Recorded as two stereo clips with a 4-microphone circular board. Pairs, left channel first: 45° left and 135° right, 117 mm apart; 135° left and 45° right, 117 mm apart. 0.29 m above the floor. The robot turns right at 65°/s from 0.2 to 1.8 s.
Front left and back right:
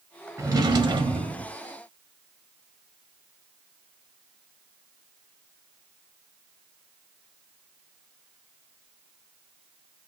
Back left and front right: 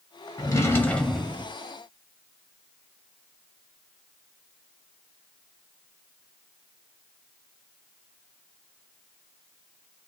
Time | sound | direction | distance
0.4 | a drawer | 175° left | 0.6 m